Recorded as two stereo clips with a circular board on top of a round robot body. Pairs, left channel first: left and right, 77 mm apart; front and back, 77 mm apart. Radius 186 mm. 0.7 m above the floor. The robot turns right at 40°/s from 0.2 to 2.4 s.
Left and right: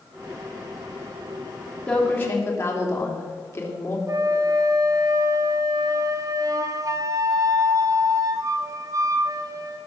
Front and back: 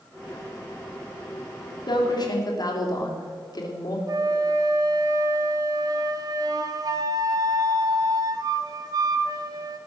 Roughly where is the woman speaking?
Ahead.